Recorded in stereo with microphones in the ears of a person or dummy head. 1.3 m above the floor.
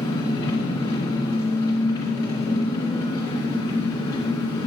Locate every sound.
0.0 s an engine running: 20° left (ahead or behind), 1.8 m